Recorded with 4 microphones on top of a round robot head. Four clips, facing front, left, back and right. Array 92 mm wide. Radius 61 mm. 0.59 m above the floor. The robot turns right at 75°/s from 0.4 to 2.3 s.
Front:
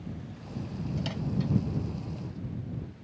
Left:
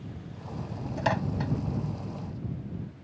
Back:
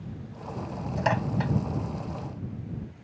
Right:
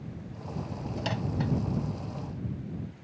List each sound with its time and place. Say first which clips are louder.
1.0 s a microwave: left 4 dB, back 7 dB; 135° left; by 1.5 s straight behind